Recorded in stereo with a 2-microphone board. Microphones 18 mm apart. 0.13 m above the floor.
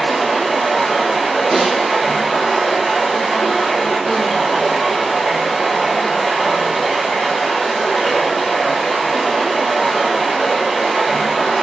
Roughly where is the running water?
Centre.